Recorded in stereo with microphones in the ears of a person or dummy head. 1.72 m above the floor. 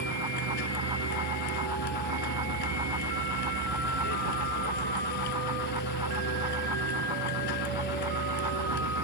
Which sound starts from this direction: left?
A vehicle, at 0.0 s.